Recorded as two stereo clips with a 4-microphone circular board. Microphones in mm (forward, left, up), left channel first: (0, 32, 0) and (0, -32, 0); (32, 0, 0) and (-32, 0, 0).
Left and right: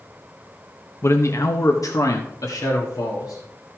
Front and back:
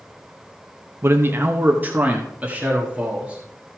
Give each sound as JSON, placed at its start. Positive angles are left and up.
{"t": 1.0, "sound": "a man speaking", "azimuth_deg": 135, "distance_m": 0.7}